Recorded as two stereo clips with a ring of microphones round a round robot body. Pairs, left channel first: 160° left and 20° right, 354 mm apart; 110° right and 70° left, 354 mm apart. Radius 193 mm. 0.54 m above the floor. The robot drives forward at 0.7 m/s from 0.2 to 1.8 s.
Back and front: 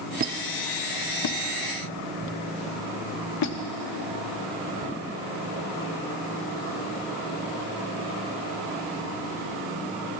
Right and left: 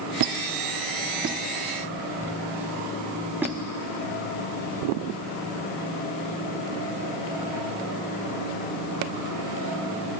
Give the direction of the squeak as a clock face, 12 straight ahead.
11 o'clock.